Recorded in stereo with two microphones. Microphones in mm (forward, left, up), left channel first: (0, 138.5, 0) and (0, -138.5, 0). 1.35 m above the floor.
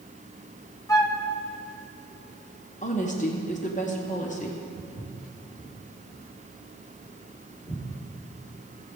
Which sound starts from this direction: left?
A woman speaking, at 2.8 s.